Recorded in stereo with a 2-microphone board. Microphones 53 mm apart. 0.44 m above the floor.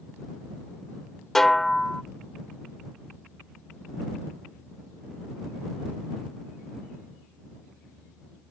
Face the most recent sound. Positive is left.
turn(degrees=5)  # may be behind; listen again after turning